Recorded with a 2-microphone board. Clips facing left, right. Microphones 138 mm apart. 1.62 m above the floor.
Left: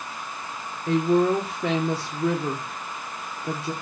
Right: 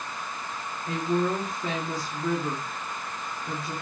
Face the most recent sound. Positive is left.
turn(degrees=75)  # may be behind; listen again after turning